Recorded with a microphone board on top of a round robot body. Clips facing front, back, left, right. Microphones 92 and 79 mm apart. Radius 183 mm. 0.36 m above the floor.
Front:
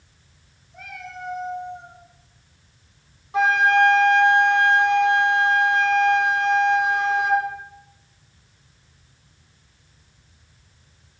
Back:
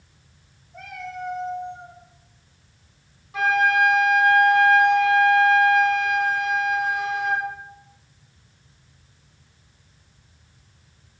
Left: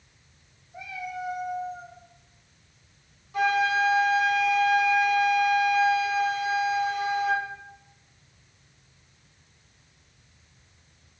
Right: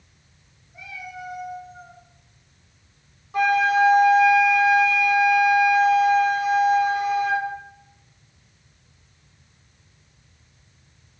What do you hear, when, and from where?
0.7 s a cat meowing: 145° left, 4 m; by 2.0 s 155° left, 3.5 m
3.3 s a flute: 55° right, 2 m